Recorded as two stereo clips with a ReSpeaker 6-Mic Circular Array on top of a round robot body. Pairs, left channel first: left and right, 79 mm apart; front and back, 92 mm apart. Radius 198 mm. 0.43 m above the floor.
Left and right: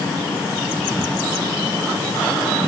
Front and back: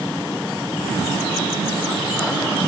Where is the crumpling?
I don't hear crumpling.